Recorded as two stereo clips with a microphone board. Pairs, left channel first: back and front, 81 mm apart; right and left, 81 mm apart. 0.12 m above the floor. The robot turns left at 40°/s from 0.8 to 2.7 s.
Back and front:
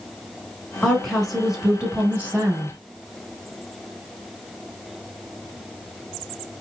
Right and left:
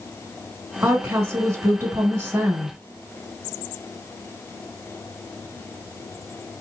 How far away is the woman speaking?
About 1.3 m.